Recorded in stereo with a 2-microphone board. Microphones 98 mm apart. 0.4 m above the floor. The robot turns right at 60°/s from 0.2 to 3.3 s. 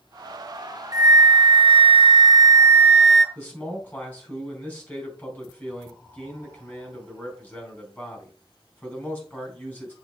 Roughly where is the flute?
Behind right.